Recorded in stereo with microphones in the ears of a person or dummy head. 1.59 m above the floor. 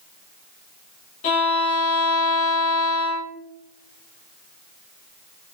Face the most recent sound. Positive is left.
turn(degrees=40)  # may be behind; listen again after turning